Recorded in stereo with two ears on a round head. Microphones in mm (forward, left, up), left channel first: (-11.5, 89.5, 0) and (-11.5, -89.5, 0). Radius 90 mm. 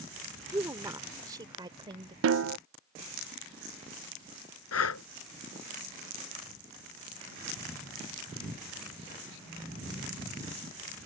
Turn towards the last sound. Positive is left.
turn(degrees=80)